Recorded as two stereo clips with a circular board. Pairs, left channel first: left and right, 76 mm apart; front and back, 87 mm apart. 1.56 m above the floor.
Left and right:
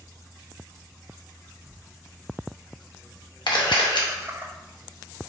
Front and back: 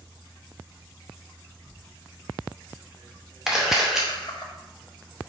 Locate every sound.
1.7 s laughter: 35° right, 0.7 m
3.5 s a camera shutter: 95° left, 0.8 m